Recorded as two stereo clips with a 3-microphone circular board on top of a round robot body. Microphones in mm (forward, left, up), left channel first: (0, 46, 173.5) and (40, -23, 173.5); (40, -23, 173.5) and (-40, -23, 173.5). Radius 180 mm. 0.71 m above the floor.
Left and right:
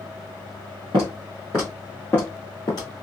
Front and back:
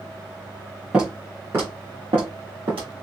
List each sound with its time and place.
0.9 s footsteps: 100° right, 1.0 m; by 2.9 s 165° left, 1.1 m